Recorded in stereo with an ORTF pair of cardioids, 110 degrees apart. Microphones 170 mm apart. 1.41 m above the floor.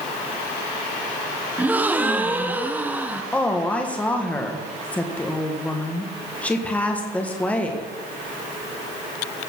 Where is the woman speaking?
10° left, 1.5 m.